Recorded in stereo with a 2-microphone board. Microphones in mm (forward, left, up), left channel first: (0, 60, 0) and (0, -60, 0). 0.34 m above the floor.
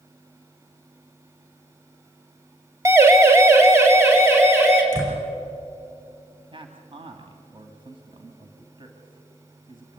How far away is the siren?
About 2.5 m.